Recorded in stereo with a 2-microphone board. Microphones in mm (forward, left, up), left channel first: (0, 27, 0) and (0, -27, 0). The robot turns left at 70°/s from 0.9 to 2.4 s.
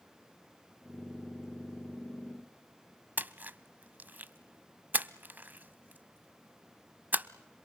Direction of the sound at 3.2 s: 35° right (ahead or behind).